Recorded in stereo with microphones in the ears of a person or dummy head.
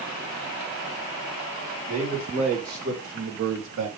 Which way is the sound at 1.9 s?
30° right (ahead or behind).